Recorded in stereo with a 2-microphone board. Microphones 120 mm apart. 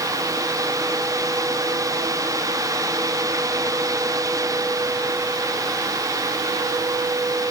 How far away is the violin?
No violin in this recording.